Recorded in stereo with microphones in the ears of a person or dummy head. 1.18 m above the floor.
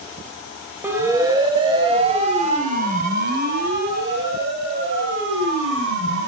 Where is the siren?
10° right (ahead or behind), 4.5 m; by 6.3 s 80° right, 9.5 m.